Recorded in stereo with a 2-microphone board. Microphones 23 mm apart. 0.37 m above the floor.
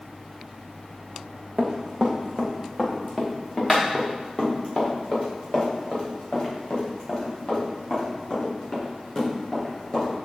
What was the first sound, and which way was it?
Running footsteps, 35° right (ahead or behind).